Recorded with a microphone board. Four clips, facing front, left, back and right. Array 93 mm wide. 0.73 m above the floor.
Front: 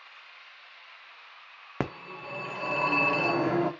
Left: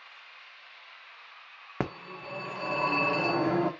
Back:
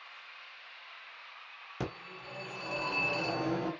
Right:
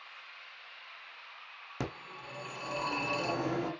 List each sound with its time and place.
1.8 s a phone ringing: 35° left, 0.8 m